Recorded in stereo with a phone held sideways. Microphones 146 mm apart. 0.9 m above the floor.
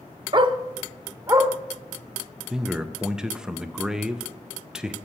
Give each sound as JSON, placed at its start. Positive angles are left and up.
{"t": 0.3, "sound": "a dog barking", "side_deg": -35, "distance_m": 0.5}
{"t": 2.5, "sound": "a man speaking", "side_deg": -5, "distance_m": 0.5}